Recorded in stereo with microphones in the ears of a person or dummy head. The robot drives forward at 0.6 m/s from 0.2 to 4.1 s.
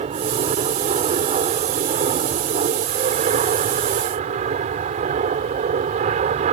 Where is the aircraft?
30° right (ahead or behind).